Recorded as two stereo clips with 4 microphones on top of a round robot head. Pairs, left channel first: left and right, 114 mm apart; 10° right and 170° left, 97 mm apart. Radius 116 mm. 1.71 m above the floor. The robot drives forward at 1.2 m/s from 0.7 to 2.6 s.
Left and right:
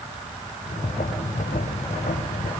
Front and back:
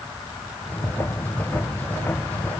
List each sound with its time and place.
Only background noise.